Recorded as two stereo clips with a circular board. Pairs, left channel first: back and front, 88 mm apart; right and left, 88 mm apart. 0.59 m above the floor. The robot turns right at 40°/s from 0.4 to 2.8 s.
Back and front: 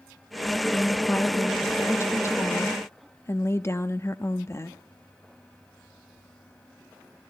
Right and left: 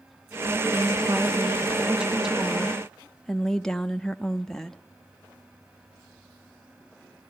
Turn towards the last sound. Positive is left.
turn(degrees=-170)